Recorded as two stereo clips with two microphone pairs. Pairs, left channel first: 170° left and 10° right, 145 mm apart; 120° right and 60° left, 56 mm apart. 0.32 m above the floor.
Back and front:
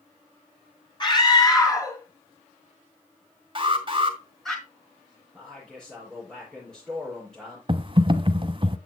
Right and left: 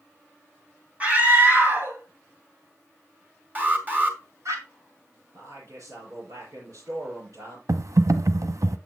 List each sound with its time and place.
1.0 s a scream: 120° left, 2.5 m; by 4.5 s 80° left, 4 m
3.5 s an alarm: 20° left, 1.9 m
5.3 s a man speaking: 85° left, 5.5 m
7.7 s typing on a keyboard: 45° left, 0.6 m